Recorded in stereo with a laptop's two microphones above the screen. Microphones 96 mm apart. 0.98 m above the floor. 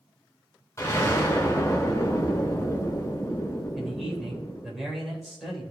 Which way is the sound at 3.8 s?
Centre (ahead or behind).